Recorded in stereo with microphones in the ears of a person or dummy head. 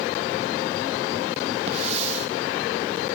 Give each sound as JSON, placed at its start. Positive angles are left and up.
{"t": 1.7, "sound": "a hiss", "side_deg": -40, "distance_m": 1.1}